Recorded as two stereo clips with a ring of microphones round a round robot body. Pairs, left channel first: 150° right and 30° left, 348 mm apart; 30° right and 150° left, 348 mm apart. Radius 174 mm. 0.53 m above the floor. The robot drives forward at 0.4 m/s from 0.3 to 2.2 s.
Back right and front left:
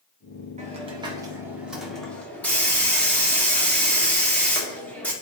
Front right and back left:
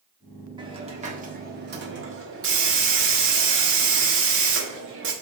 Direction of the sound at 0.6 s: 85° left.